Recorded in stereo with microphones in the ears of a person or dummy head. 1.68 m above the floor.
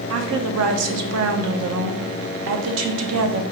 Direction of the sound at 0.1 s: 75° right (ahead or behind).